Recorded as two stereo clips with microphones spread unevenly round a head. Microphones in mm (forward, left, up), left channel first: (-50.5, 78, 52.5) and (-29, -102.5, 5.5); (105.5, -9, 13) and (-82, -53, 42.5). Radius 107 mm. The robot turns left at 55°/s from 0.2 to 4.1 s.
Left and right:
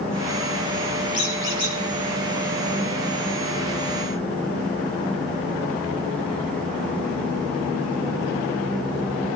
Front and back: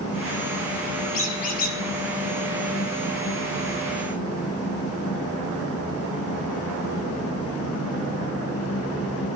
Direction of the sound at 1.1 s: 45° left.